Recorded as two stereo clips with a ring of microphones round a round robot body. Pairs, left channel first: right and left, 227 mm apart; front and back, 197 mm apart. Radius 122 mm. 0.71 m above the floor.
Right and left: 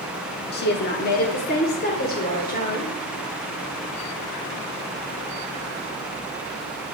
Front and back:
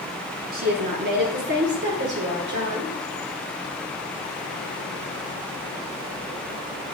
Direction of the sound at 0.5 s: 135° right.